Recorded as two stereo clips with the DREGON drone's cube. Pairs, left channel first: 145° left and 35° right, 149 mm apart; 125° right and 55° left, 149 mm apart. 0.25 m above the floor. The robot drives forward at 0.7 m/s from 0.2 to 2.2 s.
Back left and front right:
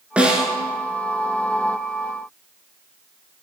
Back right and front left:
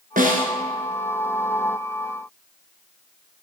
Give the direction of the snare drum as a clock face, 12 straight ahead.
10 o'clock.